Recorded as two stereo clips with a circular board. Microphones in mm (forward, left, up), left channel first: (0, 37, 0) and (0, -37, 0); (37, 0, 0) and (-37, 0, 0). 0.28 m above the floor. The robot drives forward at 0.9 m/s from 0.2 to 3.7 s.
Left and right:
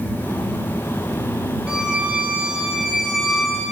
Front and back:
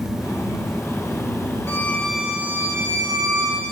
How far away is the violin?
About 0.8 m.